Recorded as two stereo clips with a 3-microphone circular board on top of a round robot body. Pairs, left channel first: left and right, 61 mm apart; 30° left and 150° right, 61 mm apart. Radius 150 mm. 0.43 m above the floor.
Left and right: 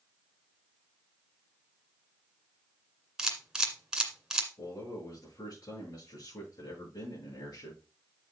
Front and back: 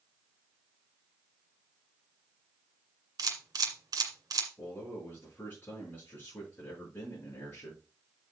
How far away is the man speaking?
About 6.5 m.